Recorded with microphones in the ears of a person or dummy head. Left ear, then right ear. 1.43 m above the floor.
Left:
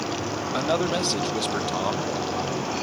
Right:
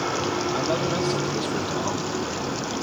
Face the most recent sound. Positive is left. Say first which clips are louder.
# even
turn(degrees=30)  # may be behind; listen again after turning